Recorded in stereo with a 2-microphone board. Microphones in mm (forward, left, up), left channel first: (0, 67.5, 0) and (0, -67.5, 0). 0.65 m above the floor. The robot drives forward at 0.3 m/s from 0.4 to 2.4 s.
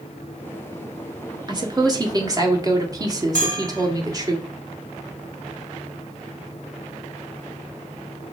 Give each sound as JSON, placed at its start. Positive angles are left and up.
{"t": 1.5, "sound": "a woman speaking", "side_deg": -30, "distance_m": 1.4}
{"t": 3.4, "sound": "a bell", "side_deg": -75, "distance_m": 1.4}